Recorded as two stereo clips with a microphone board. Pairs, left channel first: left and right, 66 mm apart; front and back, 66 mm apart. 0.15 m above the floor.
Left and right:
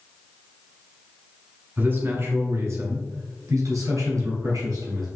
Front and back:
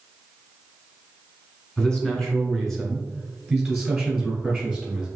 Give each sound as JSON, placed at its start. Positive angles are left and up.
{"t": 1.8, "sound": "a man speaking", "azimuth_deg": -65, "distance_m": 1.2}